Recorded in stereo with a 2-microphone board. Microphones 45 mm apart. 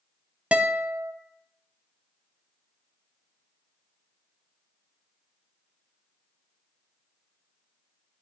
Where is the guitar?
30° right (ahead or behind), 0.6 m.